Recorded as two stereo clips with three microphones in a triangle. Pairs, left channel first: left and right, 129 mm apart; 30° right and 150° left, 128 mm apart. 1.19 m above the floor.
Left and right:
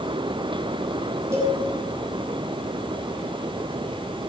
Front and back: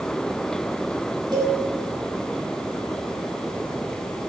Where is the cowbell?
155° right, 5 m.